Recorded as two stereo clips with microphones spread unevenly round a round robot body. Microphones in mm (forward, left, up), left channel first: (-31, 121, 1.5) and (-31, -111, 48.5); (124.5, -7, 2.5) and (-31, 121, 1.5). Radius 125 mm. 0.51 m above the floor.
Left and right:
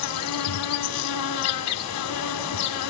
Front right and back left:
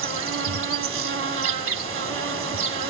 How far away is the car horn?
No car horn in this recording.